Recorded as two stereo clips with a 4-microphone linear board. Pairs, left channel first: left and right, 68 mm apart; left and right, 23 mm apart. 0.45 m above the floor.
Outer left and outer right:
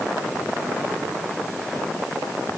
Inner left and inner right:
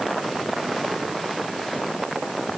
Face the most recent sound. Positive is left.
No sound to turn to.